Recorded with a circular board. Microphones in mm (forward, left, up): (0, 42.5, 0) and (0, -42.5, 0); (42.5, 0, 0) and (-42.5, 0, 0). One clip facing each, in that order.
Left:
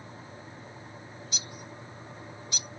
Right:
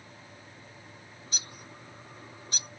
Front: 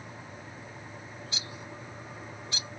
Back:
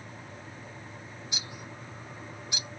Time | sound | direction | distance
1.3 | a bird | 115° right | 1.3 m